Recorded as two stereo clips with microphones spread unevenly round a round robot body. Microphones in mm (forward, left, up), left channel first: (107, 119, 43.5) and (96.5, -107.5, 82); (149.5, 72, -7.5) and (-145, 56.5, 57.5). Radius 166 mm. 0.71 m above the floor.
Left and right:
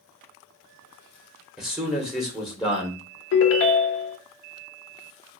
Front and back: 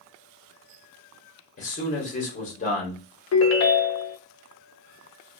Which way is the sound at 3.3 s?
55° left.